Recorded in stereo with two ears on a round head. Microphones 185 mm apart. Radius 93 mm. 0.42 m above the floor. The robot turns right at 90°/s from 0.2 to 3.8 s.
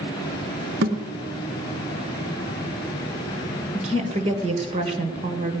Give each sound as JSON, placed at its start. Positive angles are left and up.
{"t": 0.8, "sound": "a thud", "side_deg": -45, "distance_m": 2.0}
{"t": 3.7, "sound": "a woman speaking", "side_deg": -35, "distance_m": 1.9}